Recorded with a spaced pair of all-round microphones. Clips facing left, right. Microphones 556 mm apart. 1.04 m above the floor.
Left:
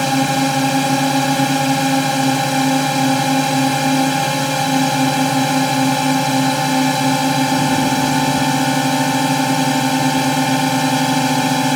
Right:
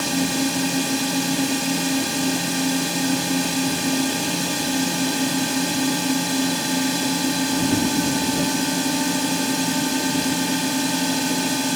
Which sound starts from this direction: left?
A drone, at 0.0 s.